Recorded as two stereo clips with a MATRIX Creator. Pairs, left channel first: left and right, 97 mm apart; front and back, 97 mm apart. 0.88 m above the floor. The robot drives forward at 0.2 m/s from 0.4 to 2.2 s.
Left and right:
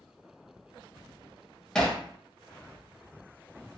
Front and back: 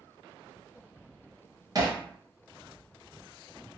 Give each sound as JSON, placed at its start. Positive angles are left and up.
{"t": 1.8, "sound": "hammering", "azimuth_deg": 170, "distance_m": 0.8}